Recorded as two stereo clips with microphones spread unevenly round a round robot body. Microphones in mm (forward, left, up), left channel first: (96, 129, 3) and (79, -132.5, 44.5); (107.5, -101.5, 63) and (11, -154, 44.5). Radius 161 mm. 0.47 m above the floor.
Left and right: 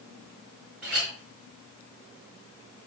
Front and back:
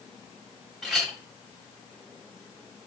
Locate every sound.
0.8 s a clink: 55° right, 3 m